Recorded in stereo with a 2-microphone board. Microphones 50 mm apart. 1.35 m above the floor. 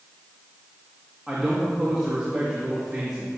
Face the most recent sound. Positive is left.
turn(degrees=-10)  # may be behind; listen again after turning